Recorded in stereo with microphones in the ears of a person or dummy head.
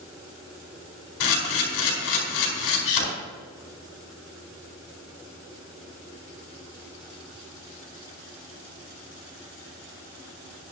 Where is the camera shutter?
80° left, 4.5 m.